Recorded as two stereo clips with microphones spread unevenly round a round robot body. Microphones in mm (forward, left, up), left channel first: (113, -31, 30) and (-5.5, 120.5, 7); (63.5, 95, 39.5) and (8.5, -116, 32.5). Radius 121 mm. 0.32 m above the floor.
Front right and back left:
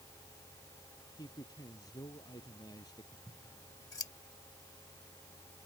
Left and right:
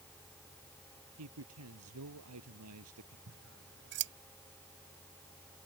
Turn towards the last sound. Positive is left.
turn(degrees=-130)